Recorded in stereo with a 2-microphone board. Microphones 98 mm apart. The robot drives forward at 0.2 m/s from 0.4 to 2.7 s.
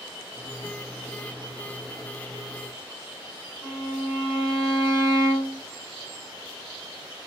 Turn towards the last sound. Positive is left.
turn(degrees=-15)  # may be behind; listen again after turning